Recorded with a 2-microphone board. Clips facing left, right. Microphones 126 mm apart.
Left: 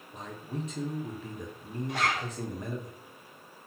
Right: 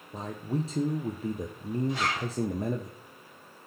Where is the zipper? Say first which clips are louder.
Even; 60° left (ahead or behind), 2.5 m.